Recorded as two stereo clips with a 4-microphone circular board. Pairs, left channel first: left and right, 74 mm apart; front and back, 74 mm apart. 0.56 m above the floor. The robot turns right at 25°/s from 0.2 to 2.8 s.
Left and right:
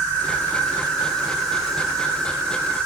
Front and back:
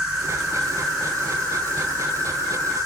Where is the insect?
105° right, 1.9 m; by 2.9 s 40° right, 1.9 m.